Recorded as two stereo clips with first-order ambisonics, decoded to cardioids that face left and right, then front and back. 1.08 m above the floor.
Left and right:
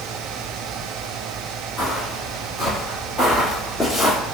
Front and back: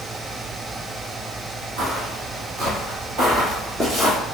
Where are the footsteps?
Straight behind, 1.9 m; by 4.2 s 160° left, 1.1 m.